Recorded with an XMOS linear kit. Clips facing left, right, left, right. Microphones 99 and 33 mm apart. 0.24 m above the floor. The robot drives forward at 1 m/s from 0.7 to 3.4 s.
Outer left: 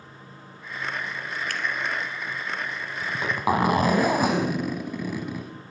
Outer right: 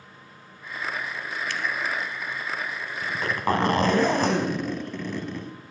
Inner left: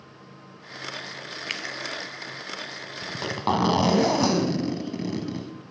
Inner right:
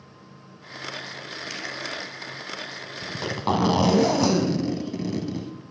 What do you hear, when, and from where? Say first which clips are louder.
1.5 s a finger snap: outer right 1 dB, inner left 6 dB; 50° left (ahead or behind), 1.2 m
3.0 s a zipper: outer left 1 dB, even; 10° left (ahead or behind), 1.2 m